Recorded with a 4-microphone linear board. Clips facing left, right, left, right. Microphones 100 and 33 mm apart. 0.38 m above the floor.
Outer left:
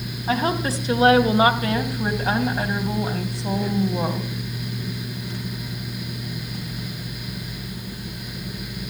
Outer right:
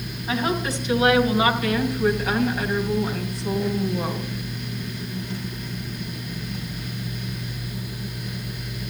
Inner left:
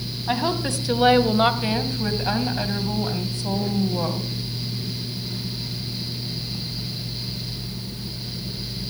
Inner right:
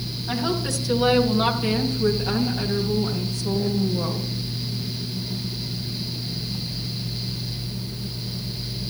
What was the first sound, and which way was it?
A woman speaking, 40° left (ahead or behind).